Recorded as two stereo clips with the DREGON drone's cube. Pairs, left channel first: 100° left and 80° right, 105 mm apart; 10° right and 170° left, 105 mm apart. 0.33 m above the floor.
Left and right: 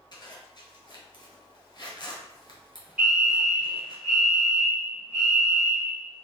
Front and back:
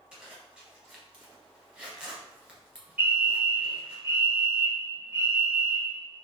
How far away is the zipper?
About 1.6 m.